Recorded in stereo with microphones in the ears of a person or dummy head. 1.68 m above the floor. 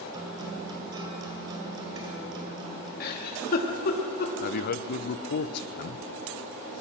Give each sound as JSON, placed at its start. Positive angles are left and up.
{"t": 0.1, "sound": "a guitar", "side_deg": -25, "distance_m": 2.0}
{"t": 3.0, "sound": "a giggle", "side_deg": 55, "distance_m": 2.5}
{"t": 4.4, "sound": "a man speaking", "side_deg": 60, "distance_m": 1.0}